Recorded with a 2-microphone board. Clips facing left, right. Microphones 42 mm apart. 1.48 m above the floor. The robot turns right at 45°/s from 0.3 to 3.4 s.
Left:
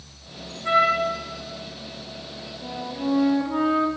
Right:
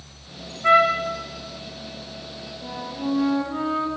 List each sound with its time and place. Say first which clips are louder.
0.6 s a trumpet: right 3 dB; 85° right, 1.9 m; by 1.1 s 65° right (ahead or behind), 1.9 m
2.6 s a flute: left 1 dB; 5° right, 1.2 m; by 3.9 s 30° left, 1.2 m